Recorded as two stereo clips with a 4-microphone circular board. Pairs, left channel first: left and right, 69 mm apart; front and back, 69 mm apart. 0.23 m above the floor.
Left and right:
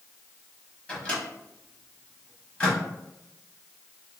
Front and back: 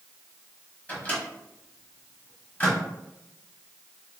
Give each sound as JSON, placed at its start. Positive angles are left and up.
{"t": 0.9, "sound": "a microwave", "azimuth_deg": 35, "distance_m": 1.2}